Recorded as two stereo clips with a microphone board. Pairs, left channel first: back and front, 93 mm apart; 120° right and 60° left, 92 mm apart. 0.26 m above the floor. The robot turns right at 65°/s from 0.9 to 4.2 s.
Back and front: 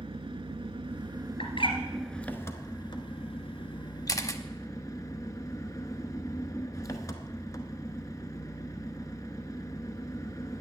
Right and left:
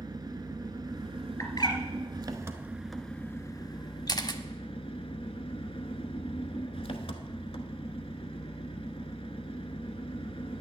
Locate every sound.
0.0 s an engine running: 20° left, 0.9 m; by 10.6 s 130° right, 0.9 m
1.4 s a bird: straight behind, 2 m; by 1.8 s 155° right, 2 m
4.1 s a camera shutter: 145° right, 0.7 m; by 4.4 s 140° right, 0.7 m